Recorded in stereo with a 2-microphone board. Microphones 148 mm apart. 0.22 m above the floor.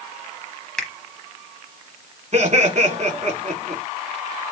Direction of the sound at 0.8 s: 5° left (ahead or behind).